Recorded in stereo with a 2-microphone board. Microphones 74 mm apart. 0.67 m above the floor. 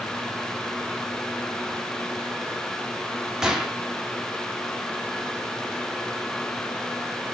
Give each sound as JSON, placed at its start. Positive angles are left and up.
{"t": 3.4, "sound": "a gunshot", "side_deg": -10, "distance_m": 1.4}